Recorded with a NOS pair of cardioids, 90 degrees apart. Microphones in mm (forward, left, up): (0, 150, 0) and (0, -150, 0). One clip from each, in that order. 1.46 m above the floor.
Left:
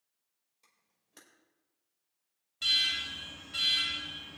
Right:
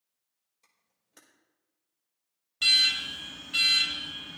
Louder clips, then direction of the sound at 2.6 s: Right 6 dB; 55° right.